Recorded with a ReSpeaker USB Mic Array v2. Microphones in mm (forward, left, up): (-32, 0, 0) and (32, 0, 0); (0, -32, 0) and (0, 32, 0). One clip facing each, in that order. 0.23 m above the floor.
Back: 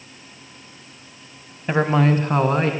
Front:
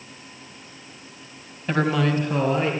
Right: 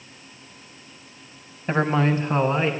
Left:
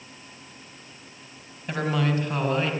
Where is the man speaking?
120° right, 1.3 m; by 2.7 s 155° right, 2.5 m.